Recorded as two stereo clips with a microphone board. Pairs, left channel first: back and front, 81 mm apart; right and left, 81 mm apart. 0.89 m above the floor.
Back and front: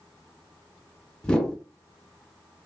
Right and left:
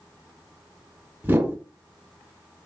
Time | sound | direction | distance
1.2 | a whoosh | 115° left | 0.5 m